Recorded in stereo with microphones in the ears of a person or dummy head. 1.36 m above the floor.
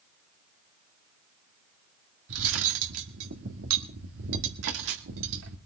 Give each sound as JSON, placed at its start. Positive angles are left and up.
{"t": 2.3, "sound": "cutlery clinking", "side_deg": -75, "distance_m": 1.8}